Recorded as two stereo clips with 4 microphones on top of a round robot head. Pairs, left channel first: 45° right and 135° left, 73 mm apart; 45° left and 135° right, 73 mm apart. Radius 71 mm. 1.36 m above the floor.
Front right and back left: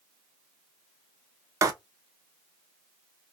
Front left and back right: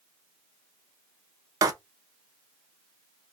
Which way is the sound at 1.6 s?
175° right.